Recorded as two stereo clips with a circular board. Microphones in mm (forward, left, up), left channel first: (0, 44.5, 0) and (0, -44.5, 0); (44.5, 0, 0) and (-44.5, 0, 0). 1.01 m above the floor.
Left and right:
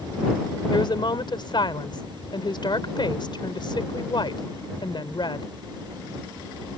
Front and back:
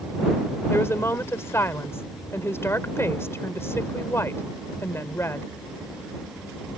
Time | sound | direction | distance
0.7 | a woman speaking | 60° left | ?